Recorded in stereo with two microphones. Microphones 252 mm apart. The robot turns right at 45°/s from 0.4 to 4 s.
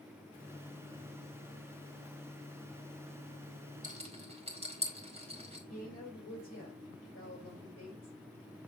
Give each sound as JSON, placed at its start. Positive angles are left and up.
{"t": 3.8, "sound": "a rattle", "side_deg": -30, "distance_m": 2.5}
{"t": 5.7, "sound": "a woman speaking", "side_deg": 60, "distance_m": 4.5}